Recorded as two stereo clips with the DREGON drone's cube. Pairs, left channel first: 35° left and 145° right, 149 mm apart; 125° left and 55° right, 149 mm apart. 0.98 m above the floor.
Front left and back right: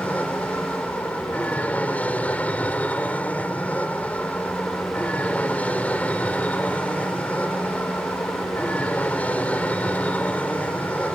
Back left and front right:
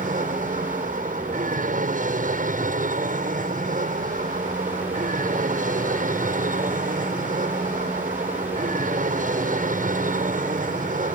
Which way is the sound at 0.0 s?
45° right.